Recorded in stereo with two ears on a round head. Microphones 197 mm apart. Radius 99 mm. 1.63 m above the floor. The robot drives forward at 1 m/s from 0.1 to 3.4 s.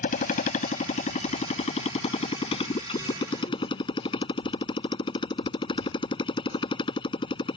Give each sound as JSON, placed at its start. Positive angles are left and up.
{"t": 0.0, "sound": "a motorcycle", "side_deg": 40}